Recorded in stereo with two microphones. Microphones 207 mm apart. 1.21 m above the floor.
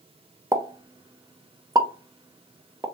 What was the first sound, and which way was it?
A pop, 20° right (ahead or behind).